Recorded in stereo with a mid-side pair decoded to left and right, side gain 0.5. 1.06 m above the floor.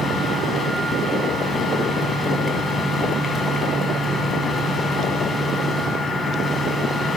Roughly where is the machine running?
Ahead left.